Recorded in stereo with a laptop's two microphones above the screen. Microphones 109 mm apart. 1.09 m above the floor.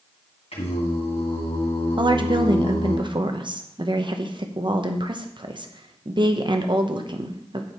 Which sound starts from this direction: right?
A woman speaking, at 2.0 s.